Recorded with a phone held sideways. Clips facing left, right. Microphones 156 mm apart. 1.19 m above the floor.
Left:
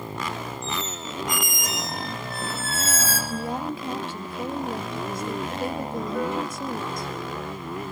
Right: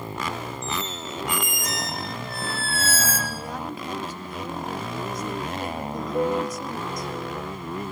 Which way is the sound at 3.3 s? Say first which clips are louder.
Left 4 dB; 25° left (ahead or behind).